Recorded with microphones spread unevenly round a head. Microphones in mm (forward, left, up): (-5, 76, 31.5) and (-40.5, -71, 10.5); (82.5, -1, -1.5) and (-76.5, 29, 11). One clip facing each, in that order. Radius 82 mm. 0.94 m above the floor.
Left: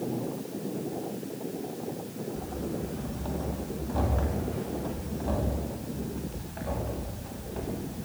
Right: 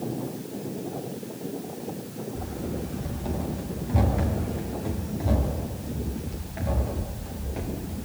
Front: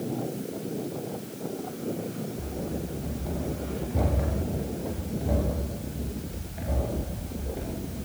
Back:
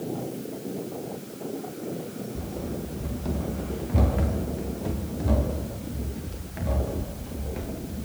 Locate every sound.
2.4 s running footsteps: 175° right, 9 m; by 8.1 s 175° left, 13 m